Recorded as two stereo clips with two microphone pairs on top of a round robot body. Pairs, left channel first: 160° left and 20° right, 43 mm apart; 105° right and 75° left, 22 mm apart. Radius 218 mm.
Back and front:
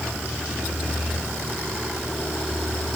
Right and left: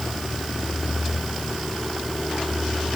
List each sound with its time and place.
Only background noise.